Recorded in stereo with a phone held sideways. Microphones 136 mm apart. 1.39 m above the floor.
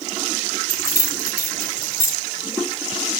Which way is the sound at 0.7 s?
20° left (ahead or behind).